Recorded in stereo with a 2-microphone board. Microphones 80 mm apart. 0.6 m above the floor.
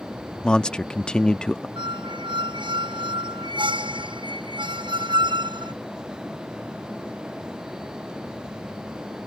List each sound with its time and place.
0.4 s a man speaking: 10° left (ahead or behind)
1.8 s a squeak: 70° right (ahead or behind)